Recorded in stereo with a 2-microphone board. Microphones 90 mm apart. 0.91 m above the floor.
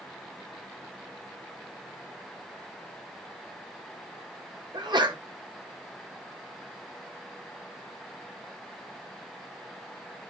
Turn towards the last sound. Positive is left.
turn(degrees=-55)  # may be behind; listen again after turning